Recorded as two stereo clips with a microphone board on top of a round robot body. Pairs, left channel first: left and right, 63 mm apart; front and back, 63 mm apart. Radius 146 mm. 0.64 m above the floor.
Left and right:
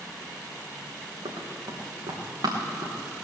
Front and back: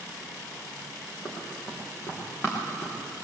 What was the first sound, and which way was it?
Running footsteps, 65° right.